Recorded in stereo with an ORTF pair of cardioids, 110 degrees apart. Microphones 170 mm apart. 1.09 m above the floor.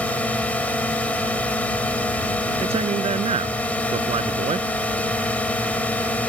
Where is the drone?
10° left.